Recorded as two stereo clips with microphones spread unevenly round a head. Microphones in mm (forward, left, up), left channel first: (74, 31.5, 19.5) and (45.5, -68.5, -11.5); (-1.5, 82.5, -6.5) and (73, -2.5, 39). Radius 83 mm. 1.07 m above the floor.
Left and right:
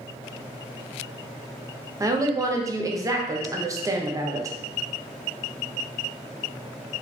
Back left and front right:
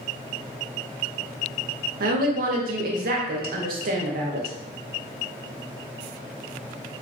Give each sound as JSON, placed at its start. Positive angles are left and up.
{"t": 2.0, "sound": "a woman speaking", "azimuth_deg": -55, "distance_m": 0.6}